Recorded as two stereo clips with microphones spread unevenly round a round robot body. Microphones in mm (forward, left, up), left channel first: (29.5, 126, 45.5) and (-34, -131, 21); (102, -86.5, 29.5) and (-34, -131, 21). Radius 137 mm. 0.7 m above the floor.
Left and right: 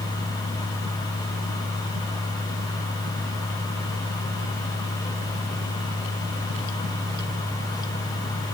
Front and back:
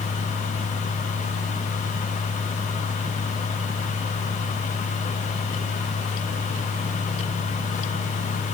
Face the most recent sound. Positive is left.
No sound to turn to.